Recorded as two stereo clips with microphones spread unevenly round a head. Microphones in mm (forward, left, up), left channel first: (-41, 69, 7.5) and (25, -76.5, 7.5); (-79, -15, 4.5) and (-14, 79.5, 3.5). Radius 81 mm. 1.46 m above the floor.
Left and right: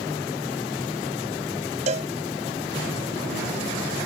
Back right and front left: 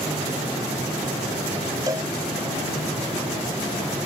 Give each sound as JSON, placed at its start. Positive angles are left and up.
{"t": 1.9, "sound": "a cowbell", "azimuth_deg": -15}